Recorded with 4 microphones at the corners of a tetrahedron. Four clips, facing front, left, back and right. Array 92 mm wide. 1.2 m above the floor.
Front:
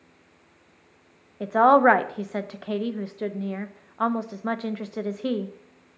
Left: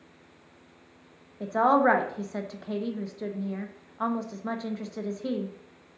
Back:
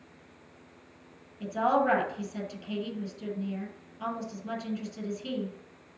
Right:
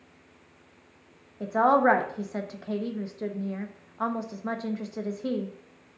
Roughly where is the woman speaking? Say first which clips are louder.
Right 1 dB, front 10 dB; ahead.